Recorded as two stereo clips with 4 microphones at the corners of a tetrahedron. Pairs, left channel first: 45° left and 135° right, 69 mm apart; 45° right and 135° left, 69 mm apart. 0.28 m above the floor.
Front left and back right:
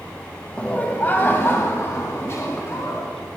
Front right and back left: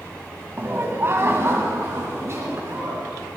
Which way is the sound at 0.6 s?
105° left.